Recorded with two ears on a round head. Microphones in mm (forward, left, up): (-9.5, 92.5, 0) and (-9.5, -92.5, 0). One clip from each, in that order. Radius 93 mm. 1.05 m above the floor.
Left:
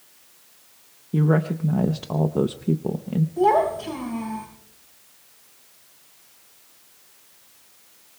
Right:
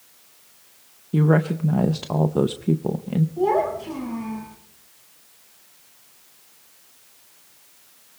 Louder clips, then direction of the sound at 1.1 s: Right 2 dB; 15° right (ahead or behind).